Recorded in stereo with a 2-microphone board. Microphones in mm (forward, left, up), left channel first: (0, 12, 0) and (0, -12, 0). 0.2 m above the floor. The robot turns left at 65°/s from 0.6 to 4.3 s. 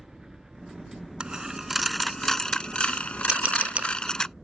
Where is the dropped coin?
40° right (ahead or behind); by 4.3 s 25° left (ahead or behind).